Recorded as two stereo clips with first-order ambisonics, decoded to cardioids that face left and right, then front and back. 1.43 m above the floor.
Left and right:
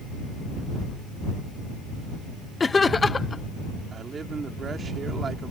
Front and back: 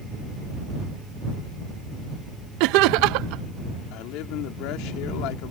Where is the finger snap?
I don't hear a finger snap.